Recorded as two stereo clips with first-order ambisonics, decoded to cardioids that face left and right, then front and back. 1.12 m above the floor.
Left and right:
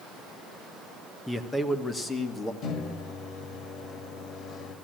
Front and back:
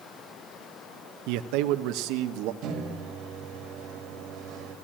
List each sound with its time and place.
1.3 s a man speaking: 175° left, 0.8 m; by 2.5 s 165° left, 1.4 m
2.6 s a microwave: 140° left, 1.8 m